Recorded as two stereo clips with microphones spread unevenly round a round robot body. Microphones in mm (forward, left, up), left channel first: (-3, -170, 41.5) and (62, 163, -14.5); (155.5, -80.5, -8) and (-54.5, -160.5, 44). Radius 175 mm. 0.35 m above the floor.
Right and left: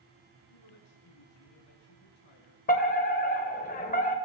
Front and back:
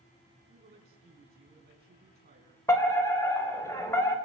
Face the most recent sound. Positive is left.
turn(degrees=-35)